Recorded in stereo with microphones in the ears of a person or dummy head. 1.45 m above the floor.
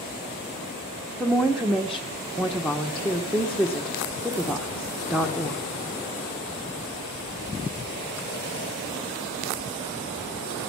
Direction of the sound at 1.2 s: Centre (ahead or behind).